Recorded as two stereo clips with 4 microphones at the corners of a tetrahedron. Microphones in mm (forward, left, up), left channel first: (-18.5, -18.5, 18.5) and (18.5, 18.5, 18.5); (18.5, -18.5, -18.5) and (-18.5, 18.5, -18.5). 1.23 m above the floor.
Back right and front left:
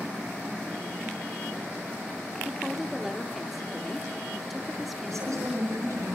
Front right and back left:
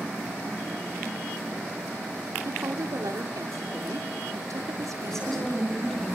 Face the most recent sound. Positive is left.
turn(degrees=40)